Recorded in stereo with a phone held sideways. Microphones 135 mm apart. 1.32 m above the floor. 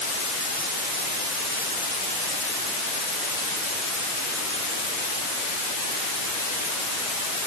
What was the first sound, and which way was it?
Only background noise.